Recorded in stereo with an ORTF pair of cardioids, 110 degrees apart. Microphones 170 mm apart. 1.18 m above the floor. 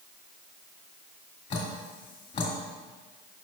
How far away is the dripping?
About 2.5 m.